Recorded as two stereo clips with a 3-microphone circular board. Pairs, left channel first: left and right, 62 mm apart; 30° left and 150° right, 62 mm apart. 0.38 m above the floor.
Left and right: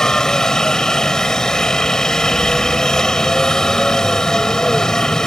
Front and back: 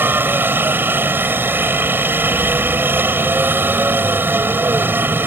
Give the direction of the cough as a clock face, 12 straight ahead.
No cough in this recording.